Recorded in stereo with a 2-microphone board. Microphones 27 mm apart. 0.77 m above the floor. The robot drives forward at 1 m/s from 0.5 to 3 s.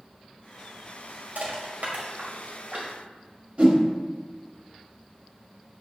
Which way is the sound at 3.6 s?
50° right (ahead or behind).